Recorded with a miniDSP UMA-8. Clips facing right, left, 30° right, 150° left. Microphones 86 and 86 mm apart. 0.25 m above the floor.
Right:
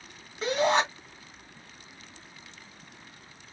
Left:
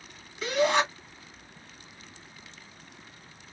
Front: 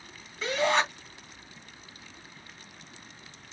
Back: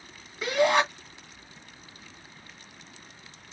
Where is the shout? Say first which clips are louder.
Even, back 3 dB; 135° right, 2 m.